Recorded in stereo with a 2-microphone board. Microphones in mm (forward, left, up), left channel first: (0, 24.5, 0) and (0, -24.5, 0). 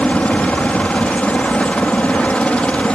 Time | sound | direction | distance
0.0 | a helicopter | 25° left (ahead or behind) | ?